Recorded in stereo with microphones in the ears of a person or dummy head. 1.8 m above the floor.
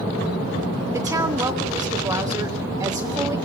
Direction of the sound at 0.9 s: 15° right (ahead or behind).